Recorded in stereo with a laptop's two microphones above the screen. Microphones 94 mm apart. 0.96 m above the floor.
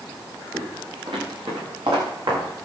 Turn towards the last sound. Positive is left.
turn(degrees=-60)  # may be behind; listen again after turning